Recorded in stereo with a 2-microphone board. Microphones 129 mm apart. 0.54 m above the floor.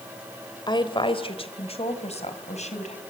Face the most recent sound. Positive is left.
turn(degrees=60)  # may be behind; listen again after turning